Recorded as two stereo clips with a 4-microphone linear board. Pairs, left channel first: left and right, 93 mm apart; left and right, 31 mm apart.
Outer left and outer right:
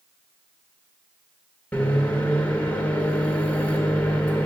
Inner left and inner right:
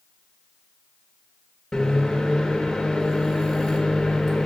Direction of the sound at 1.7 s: 15° left (ahead or behind).